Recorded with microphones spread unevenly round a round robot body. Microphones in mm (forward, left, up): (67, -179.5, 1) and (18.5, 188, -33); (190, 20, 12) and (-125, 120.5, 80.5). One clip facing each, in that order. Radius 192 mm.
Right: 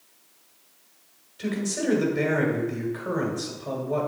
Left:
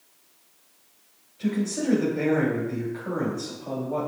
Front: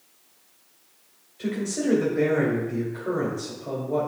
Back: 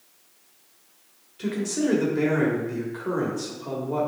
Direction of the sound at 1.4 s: 130° right.